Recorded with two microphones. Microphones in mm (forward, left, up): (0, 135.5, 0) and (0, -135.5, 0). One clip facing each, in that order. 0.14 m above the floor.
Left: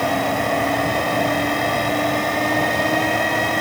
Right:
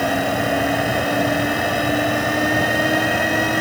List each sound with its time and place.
Only background noise.